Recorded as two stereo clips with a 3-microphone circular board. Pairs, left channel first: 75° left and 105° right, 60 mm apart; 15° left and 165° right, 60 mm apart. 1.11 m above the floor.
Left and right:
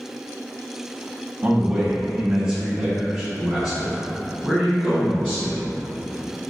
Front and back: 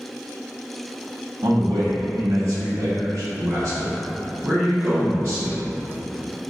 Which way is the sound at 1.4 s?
170° right.